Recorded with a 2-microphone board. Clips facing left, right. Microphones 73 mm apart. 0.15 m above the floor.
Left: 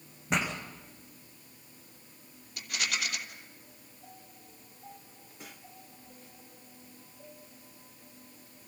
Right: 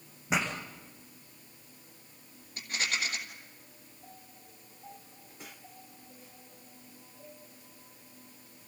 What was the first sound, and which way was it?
A pop, 5° right (ahead or behind).